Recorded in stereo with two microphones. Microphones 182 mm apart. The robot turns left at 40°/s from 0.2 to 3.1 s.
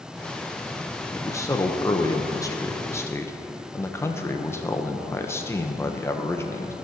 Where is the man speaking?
15° left (ahead or behind), 0.6 m.